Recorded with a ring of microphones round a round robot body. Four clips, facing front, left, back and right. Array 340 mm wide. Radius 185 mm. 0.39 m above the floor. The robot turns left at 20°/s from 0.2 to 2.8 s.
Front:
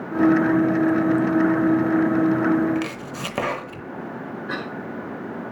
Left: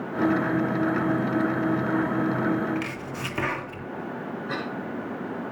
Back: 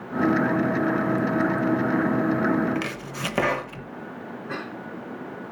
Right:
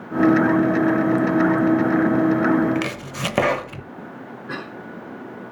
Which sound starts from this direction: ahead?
A cough, at 4.5 s.